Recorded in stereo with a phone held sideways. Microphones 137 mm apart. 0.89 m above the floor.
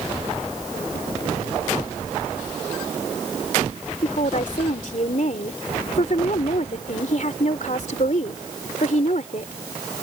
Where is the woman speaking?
60° left (ahead or behind).